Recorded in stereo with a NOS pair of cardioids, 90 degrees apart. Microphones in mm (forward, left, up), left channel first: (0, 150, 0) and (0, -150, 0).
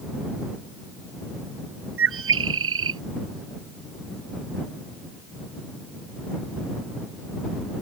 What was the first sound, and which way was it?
A bird, 45° right.